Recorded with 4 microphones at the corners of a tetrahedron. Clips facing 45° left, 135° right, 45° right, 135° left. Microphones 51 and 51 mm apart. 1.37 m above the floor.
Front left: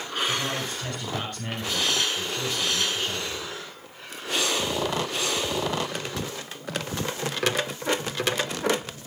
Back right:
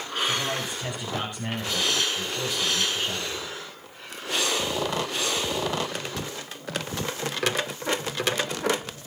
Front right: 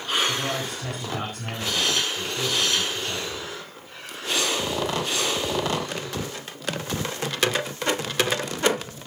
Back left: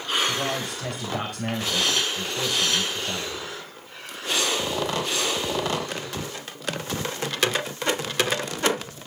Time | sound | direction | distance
0.3 | a man speaking | 150° left | 6.5 m